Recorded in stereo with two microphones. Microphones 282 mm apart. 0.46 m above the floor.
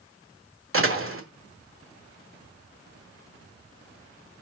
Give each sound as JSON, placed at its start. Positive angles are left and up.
{"t": 0.7, "sound": "a door slam", "side_deg": -50, "distance_m": 1.4}